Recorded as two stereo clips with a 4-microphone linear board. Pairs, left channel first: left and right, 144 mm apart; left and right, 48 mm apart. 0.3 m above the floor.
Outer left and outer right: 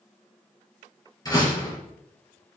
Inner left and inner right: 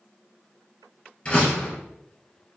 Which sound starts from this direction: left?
A door slam, at 1.2 s.